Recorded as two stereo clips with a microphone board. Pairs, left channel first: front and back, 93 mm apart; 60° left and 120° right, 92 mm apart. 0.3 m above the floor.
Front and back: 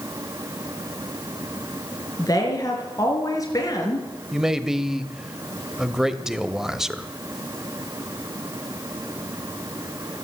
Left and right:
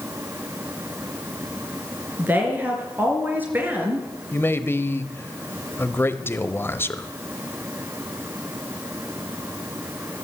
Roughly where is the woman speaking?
Ahead right.